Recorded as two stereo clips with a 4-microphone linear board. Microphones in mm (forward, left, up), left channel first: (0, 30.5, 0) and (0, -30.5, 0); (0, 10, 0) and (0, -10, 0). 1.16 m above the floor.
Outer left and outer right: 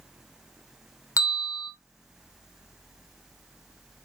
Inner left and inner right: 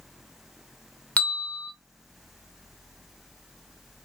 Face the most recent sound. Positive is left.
turn(degrees=75)  # may be behind; listen again after turning